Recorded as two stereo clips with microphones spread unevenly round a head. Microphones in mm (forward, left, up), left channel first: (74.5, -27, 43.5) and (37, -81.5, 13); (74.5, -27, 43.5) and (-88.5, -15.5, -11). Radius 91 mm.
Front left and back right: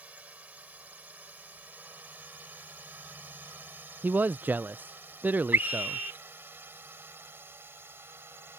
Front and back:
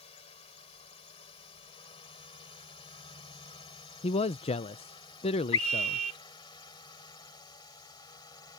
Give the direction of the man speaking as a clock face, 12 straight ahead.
2 o'clock.